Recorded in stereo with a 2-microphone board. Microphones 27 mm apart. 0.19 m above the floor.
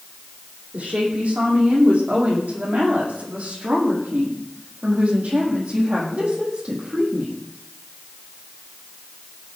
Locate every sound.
0.7 s a woman speaking: 75° right (ahead or behind), 8.5 m; by 7.4 s 50° right (ahead or behind), 6 m